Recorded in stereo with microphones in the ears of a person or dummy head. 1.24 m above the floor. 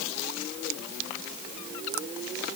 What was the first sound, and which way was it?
Only background noise.